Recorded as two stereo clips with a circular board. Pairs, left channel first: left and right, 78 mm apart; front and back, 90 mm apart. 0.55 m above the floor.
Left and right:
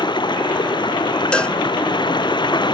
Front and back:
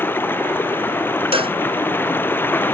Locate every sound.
0.0 s running water: 70° left
1.3 s a cowbell: 170° left